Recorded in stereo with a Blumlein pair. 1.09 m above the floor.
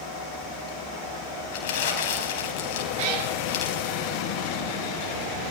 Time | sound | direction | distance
1.5 | crumpling | 50° left | 4.5 m
3.0 | a cat meowing | 50° right | 3.5 m